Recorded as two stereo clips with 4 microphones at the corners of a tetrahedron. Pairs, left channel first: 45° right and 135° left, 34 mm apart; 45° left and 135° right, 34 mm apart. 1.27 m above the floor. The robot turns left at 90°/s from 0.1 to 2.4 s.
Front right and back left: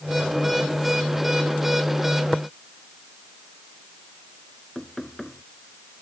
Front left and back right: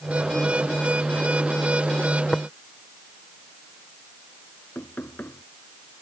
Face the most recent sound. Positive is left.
turn(degrees=30)